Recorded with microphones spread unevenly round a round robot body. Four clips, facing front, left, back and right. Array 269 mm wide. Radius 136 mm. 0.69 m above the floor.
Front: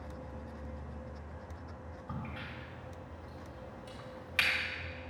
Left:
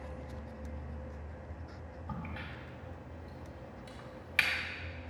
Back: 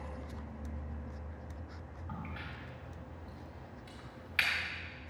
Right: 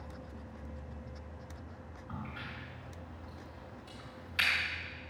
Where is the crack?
60° left, 1.7 m.